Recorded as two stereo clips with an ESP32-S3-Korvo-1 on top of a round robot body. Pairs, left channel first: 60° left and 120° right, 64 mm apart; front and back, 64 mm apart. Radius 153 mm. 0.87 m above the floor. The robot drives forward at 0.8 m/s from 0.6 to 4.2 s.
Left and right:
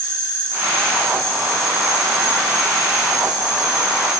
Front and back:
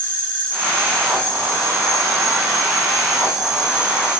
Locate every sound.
0.0 s an insect: 70° right, 5.5 m; by 4.2 s 105° right, 5 m